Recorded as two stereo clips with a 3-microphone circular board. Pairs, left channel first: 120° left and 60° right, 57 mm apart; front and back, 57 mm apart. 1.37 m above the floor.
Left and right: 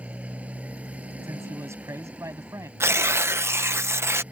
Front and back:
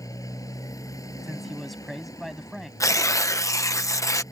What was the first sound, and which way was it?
A motorcycle, 5° left.